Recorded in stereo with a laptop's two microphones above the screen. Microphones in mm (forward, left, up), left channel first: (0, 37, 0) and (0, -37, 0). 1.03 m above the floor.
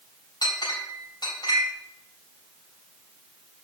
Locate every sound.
0.4 s a clink: 75° left (ahead or behind), 3 m